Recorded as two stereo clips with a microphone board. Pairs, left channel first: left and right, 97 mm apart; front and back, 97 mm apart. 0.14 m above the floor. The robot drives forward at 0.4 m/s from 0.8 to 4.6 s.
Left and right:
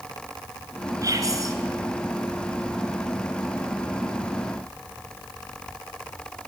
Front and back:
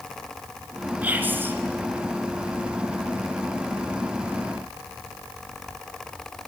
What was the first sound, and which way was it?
Whispering, 115° right.